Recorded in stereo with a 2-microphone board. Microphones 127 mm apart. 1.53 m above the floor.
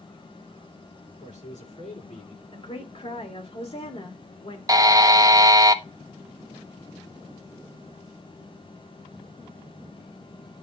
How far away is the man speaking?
About 6 m.